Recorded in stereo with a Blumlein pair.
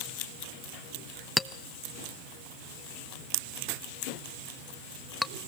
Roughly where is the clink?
Ahead.